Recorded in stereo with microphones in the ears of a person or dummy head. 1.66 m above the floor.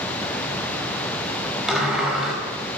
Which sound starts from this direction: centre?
A sliding door, at 1.7 s.